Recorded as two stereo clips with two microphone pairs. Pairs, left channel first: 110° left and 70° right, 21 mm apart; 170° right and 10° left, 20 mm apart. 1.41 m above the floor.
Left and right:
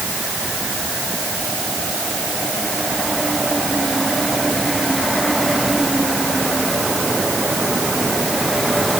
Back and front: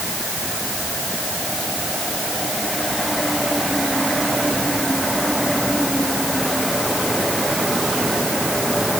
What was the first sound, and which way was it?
Only background noise.